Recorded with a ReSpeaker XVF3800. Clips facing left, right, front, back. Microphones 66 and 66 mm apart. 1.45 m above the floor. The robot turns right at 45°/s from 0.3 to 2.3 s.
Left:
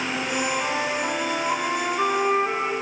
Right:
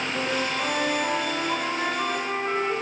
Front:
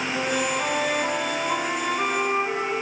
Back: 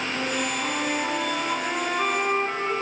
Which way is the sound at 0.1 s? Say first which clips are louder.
Even, front 4 dB; 30° right.